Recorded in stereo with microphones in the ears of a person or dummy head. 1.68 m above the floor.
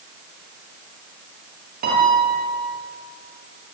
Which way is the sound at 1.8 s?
45° right (ahead or behind).